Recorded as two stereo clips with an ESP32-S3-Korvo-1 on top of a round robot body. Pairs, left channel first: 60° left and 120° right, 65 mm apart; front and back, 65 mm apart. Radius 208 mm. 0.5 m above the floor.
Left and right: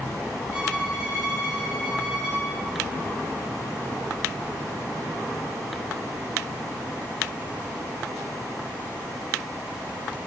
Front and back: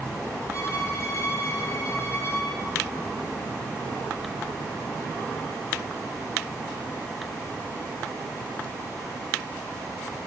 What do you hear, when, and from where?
0.5 s a violin: 40° right, 2.5 m